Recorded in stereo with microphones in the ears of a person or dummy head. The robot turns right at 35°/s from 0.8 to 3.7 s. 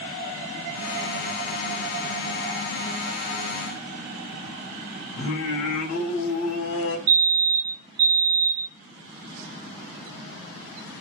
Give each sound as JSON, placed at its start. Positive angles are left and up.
{"t": 5.2, "sound": "singing", "side_deg": 75, "distance_m": 1.1}
{"t": 7.1, "sound": "a fire alarm", "side_deg": -40, "distance_m": 0.8}